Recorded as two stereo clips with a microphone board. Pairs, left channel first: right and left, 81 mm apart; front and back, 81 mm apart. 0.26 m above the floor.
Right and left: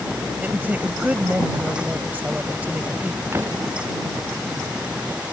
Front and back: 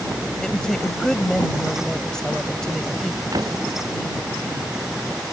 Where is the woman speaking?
70° left.